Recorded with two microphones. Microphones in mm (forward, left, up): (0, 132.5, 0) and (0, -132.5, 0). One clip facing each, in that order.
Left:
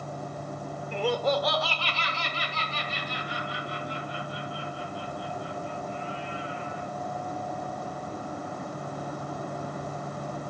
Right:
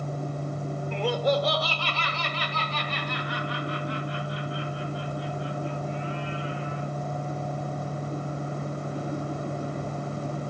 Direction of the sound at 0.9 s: 10° left (ahead or behind).